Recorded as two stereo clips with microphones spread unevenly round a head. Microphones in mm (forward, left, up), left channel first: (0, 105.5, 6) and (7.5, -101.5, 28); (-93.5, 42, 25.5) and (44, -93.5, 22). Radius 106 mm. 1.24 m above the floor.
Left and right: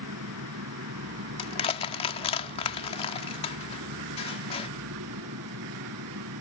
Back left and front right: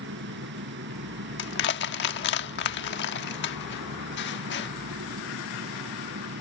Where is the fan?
75° right.